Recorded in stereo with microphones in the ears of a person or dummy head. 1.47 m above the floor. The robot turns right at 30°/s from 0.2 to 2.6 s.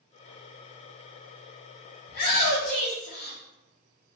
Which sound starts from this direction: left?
A shout, at 2.1 s.